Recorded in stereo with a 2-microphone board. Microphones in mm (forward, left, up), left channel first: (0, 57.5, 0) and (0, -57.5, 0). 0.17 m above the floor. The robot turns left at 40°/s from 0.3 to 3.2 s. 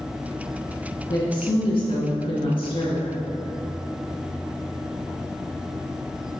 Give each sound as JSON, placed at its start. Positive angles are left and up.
{"t": 1.1, "sound": "a woman speaking", "azimuth_deg": 130, "distance_m": 2.0}